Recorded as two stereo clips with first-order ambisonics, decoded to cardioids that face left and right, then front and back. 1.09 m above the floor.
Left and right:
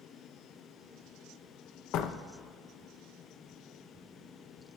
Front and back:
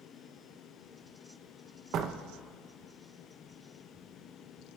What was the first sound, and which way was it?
A door slam, 130° left.